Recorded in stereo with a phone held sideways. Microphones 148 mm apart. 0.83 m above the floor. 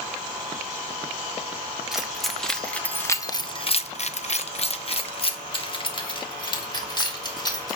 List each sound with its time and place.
1.9 s keys jangling: centre (ahead or behind), 1.2 m; by 7.8 s 30° left (ahead or behind), 2.5 m